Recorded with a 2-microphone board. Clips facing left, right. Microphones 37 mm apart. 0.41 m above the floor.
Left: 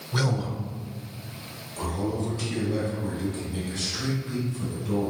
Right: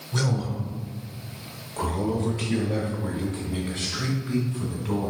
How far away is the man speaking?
About 0.9 m.